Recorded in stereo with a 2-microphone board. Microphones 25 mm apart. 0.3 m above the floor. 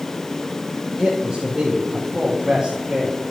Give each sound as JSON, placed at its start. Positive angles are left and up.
{"t": 1.0, "sound": "a man speaking", "side_deg": -25, "distance_m": 3.0}